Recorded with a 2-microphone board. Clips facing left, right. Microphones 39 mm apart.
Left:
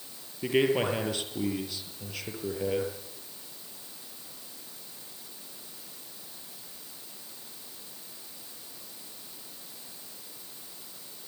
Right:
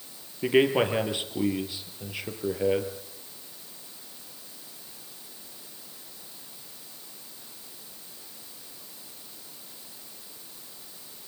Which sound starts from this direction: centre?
A man speaking, at 0.4 s.